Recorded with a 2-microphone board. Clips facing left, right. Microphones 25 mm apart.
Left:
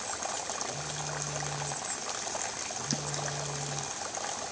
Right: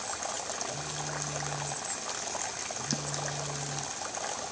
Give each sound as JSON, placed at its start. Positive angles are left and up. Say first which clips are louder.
{"t": 0.7, "sound": "a phone buzzing", "louder": "even", "side_deg": -35, "distance_m": 6.5}